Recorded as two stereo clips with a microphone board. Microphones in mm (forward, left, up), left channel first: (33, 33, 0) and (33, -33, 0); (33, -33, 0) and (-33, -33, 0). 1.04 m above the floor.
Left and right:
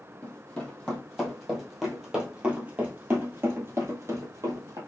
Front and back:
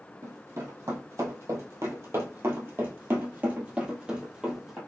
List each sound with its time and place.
0.2 s running footsteps: 160° left, 2 m; by 4.8 s 100° right, 1.8 m